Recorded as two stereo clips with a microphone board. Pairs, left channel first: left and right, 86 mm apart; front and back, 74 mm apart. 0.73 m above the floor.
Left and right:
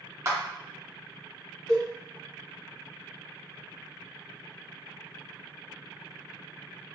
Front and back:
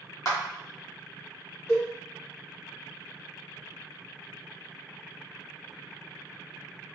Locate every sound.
0.2 s a clap: 35° right, 1.0 m
1.7 s a cowbell: 50° left, 1.4 m